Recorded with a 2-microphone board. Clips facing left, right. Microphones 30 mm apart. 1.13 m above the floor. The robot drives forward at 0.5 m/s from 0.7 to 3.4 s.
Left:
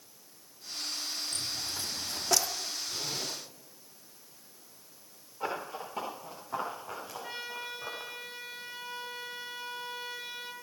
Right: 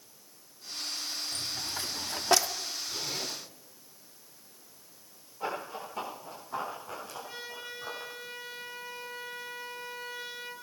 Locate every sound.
1.3 s a dropped coin: 30° right (ahead or behind), 1.1 m; by 2.5 s 50° right (ahead or behind), 0.8 m
2.9 s a zipper: 5° right (ahead or behind), 8 m
5.4 s running footsteps: 10° left (ahead or behind), 7 m; by 8.1 s 5° left (ahead or behind), 5 m
7.2 s a trumpet: 50° left (ahead or behind), 4.5 m